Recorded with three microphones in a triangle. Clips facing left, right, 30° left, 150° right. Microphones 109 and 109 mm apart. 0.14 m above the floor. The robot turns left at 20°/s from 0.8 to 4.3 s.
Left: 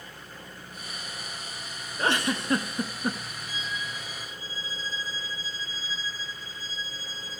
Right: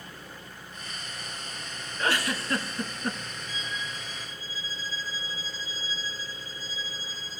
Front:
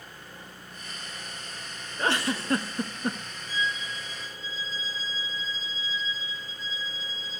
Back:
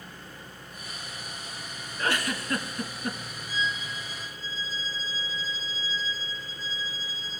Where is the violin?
140° left, 2.5 m; by 7.4 s 120° left, 2.5 m.